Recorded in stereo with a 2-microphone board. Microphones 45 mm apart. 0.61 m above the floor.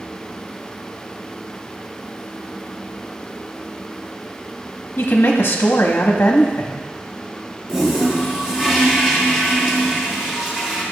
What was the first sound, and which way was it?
A woman speaking, 45° left (ahead or behind).